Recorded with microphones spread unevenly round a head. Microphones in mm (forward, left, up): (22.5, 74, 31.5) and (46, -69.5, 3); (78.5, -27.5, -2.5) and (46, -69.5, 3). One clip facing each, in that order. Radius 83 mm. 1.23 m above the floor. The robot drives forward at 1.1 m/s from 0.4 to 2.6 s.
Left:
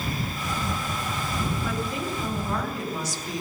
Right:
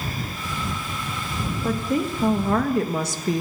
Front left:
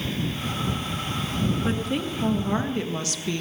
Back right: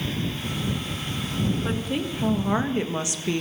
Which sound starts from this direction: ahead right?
A woman speaking, at 1.6 s.